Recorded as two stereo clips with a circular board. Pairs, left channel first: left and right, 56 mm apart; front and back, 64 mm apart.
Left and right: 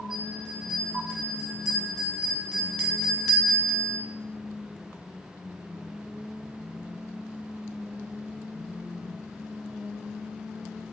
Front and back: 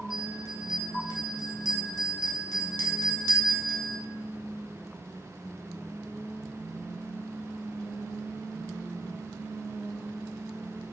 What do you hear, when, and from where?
0.1 s a bell: 175° right, 0.6 m